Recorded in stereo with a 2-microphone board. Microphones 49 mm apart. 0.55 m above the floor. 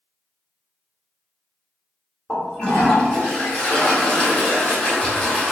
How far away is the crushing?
No crushing in this recording.